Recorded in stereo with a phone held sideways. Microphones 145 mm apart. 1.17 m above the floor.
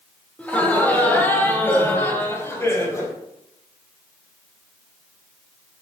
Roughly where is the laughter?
Centre.